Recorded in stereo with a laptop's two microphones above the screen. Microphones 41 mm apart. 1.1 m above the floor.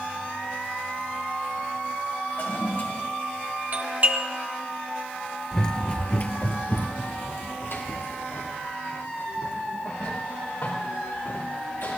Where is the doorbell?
50° right (ahead or behind), 1.3 m.